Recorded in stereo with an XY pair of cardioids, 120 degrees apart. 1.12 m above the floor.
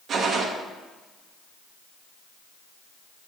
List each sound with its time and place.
0.1 s a gunshot: 55° right, 1.0 m